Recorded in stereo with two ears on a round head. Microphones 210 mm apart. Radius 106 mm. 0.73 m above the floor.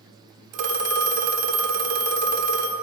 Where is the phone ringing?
75° right (ahead or behind), 1.4 m.